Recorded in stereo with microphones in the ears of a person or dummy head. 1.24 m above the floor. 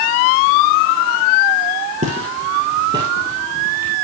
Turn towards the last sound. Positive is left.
turn(degrees=-15)  # may be behind; listen again after turning